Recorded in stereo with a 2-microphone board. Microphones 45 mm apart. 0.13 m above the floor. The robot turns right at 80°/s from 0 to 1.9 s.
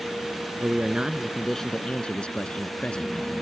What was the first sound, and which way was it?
A man speaking, 65° right.